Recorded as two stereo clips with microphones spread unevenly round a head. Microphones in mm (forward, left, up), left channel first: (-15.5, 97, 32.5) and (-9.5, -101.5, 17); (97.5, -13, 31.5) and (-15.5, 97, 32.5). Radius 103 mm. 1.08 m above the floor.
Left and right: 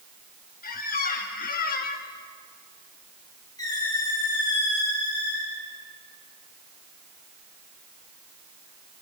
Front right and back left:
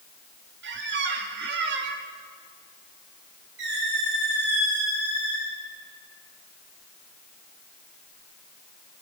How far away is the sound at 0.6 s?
About 1.5 m.